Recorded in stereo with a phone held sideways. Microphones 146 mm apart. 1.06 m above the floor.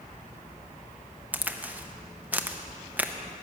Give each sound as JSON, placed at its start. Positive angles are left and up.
{"t": 1.3, "sound": "a crack", "side_deg": -10, "distance_m": 0.6}